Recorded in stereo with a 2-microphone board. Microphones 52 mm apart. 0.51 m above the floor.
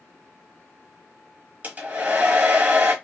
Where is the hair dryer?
30° right (ahead or behind), 0.8 m.